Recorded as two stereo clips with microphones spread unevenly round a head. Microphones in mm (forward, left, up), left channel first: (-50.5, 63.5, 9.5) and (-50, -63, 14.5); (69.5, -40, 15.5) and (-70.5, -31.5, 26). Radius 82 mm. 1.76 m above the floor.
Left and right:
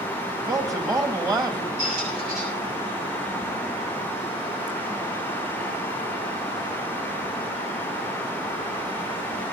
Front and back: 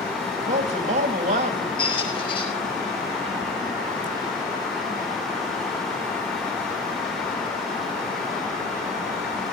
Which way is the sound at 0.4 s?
150° right.